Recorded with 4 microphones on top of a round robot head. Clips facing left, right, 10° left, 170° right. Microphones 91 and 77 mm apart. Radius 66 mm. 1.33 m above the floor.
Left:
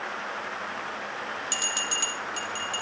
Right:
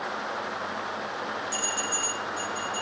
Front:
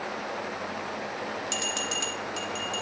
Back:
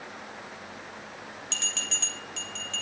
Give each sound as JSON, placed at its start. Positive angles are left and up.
{"t": 1.5, "sound": "a bell", "azimuth_deg": 95, "distance_m": 7.5}